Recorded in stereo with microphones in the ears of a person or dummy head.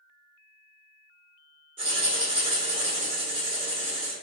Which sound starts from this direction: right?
Writing, at 1.8 s.